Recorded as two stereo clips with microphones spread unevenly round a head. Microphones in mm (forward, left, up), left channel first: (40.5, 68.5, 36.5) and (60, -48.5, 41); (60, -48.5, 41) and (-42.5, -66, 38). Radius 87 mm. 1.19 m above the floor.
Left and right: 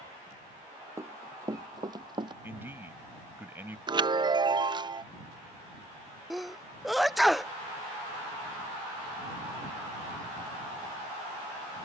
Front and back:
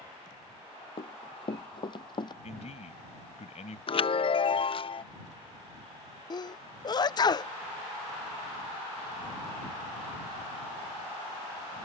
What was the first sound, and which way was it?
Running footsteps, 15° right.